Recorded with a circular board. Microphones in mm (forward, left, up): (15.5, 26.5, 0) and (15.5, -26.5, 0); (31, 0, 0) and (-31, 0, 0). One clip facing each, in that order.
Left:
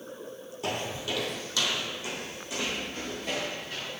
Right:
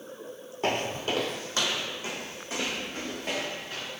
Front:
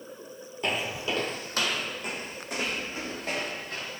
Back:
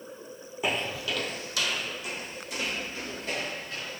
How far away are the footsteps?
About 0.5 m.